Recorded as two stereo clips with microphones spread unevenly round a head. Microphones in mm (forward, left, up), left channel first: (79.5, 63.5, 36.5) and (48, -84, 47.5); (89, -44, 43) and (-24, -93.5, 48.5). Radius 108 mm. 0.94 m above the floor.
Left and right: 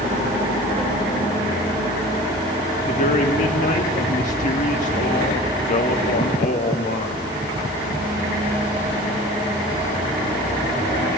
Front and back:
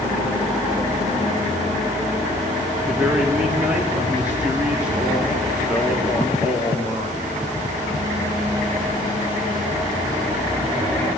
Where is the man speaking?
120° left, 2 m.